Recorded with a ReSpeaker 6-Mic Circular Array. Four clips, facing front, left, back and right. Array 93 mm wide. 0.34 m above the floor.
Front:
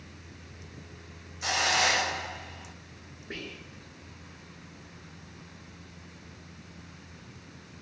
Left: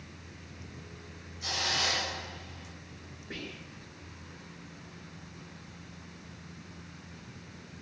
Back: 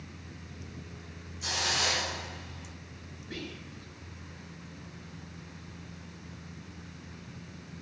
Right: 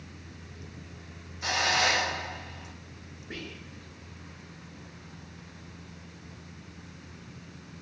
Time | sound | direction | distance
1.4 | a hiss | 40° right | 0.6 m
3.3 | whispering | 10° right | 1.0 m